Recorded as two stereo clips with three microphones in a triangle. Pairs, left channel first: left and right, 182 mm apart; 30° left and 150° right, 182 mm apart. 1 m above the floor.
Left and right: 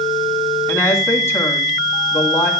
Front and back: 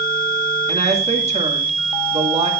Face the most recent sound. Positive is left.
turn(degrees=165)